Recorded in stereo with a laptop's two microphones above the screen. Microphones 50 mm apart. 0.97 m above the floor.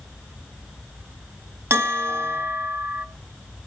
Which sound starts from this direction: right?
A bell, at 1.7 s.